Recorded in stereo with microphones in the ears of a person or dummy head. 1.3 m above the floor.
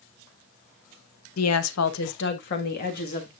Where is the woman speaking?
85° left, 1.2 m; by 3.3 s 40° left (ahead or behind), 2.5 m.